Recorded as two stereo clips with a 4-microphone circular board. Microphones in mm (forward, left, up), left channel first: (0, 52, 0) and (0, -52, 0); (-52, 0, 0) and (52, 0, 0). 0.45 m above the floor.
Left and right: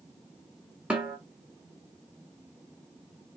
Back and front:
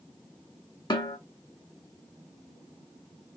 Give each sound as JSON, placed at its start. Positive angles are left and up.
{"t": 0.9, "sound": "a snare drum", "azimuth_deg": -165, "distance_m": 0.8}